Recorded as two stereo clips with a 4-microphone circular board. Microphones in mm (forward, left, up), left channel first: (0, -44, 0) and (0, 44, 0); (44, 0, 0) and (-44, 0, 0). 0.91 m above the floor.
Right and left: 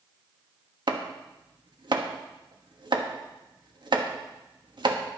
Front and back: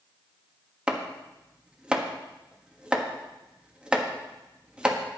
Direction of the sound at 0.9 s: 105° left.